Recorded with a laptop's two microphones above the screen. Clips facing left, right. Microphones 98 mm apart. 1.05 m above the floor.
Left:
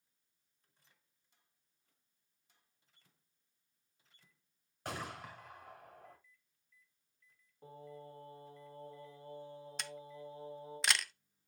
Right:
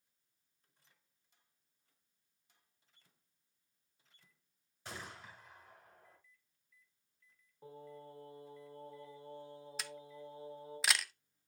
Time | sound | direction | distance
4.8 | a gunshot | 60° left (ahead or behind) | 2 m
7.6 | singing | 10° right (ahead or behind) | 4.5 m
9.8 | a camera shutter | centre (ahead or behind) | 0.7 m